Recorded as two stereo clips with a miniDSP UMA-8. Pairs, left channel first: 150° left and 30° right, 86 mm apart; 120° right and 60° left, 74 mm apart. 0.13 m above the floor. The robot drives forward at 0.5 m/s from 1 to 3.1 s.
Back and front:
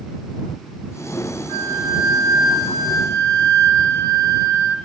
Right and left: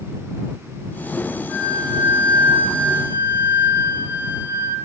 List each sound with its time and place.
1.5 s a flute: 5° left, 3 m; by 4.8 s 10° left, 2.5 m